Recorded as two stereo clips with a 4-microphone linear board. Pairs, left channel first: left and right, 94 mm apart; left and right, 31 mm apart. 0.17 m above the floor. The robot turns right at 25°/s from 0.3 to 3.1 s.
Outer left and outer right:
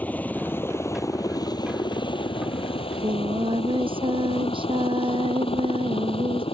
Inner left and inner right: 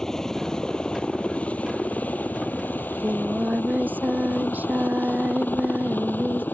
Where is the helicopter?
15° left (ahead or behind); by 6.5 s 75° left (ahead or behind).